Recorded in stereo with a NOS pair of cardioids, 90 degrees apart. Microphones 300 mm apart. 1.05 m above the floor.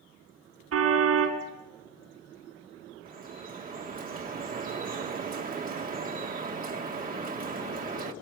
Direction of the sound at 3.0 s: 30° right.